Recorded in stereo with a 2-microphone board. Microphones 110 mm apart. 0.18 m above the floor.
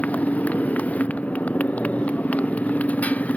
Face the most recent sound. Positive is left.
turn(degrees=15)  # may be behind; listen again after turning